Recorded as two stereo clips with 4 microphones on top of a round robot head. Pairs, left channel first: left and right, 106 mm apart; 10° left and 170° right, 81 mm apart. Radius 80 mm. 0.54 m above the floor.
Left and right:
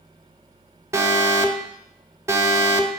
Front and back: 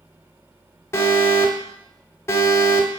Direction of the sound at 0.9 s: 35° right.